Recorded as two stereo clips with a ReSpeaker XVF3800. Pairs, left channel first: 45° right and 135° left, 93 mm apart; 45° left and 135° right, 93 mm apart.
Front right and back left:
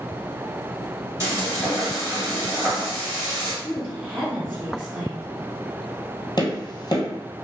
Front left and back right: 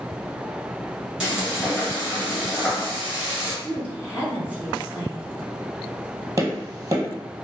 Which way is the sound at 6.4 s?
85° right.